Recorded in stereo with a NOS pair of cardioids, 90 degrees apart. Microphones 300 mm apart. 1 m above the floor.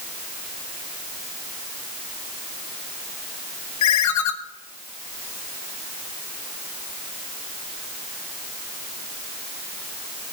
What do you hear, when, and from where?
3.8 s a ringtone: 70° left, 1.4 m